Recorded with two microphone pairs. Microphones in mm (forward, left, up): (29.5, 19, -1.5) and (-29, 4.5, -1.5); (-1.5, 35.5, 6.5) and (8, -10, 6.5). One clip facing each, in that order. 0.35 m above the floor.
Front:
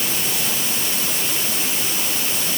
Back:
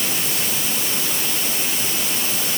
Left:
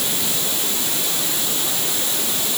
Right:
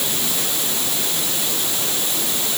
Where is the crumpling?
No crumpling in this recording.